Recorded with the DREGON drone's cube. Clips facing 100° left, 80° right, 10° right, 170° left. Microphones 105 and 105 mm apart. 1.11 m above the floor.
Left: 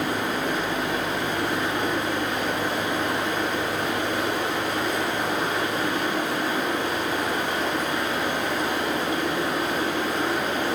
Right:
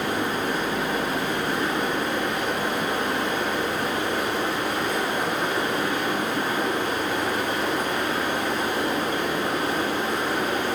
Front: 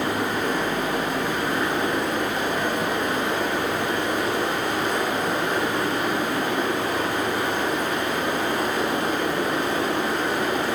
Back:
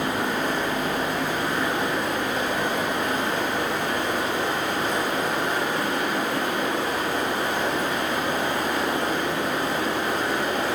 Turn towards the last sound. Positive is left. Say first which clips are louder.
# even, front 1 dB
turn(degrees=-30)